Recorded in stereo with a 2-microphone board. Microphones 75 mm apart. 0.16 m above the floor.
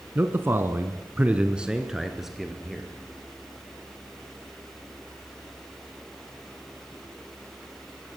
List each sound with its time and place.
0.1 s a man speaking: 30° right (ahead or behind), 1.6 m; by 2.9 s centre (ahead or behind), 3 m